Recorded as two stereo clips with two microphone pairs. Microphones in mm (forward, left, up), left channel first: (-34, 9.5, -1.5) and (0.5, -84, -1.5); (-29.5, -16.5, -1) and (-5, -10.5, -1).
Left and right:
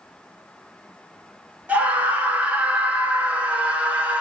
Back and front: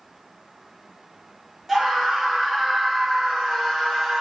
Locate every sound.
1.7 s a scream: 35° right, 1.2 m